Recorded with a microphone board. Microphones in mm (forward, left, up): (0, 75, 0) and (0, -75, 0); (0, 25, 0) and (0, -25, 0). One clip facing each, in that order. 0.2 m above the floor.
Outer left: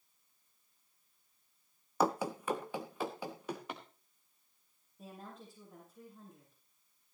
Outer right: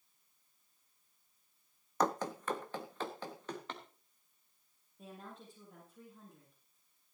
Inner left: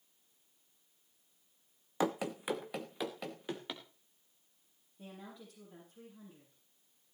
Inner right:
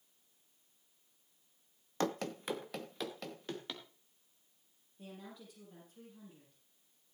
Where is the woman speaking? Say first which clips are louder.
Outer left 1 dB, even; centre (ahead or behind), 5.5 m.